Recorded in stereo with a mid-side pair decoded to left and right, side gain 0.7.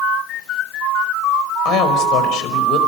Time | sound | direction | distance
1.6 | a woman speaking | 55° left | 5 m